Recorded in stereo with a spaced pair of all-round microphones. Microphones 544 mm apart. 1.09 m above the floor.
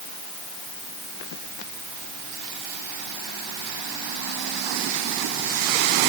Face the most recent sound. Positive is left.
No sound to turn to.